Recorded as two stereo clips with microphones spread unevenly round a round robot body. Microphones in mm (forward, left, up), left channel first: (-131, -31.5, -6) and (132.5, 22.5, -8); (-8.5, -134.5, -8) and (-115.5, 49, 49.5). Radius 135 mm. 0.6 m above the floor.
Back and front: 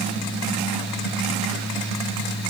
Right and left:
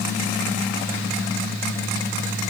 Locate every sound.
Only background noise.